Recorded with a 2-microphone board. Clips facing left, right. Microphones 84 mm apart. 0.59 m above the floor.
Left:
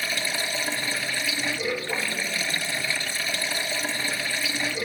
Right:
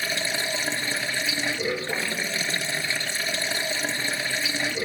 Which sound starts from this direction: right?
Running water, at 0.0 s.